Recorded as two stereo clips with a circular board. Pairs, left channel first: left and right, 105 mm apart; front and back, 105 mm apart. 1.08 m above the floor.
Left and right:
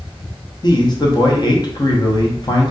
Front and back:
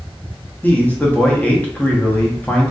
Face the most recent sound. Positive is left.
turn(degrees=70)